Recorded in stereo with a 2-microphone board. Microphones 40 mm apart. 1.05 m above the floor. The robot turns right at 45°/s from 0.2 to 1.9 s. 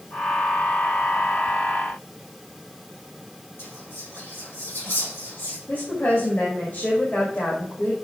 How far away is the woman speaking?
About 2 m.